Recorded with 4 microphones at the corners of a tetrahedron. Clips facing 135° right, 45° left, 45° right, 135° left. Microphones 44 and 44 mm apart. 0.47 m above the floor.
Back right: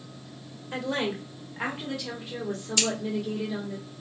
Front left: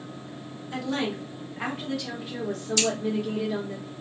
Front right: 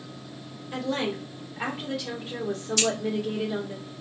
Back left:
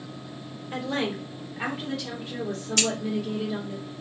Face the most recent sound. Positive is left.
turn(degrees=155)